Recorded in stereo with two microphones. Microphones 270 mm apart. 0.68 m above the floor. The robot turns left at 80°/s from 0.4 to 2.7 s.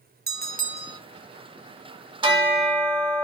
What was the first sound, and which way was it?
A bell, 115° right.